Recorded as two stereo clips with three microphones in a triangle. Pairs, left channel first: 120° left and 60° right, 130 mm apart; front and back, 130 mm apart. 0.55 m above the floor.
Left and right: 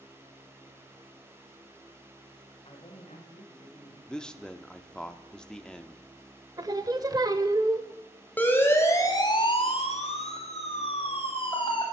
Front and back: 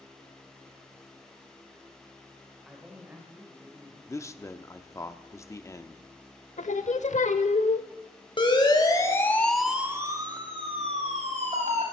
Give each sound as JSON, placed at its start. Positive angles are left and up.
{"t": 2.6, "sound": "a man speaking", "azimuth_deg": 90, "distance_m": 2.5}
{"t": 4.1, "sound": "a man speaking", "azimuth_deg": 40, "distance_m": 0.7}
{"t": 6.6, "sound": "singing", "azimuth_deg": -5, "distance_m": 0.8}
{"t": 8.4, "sound": "a siren", "azimuth_deg": 45, "distance_m": 2.5}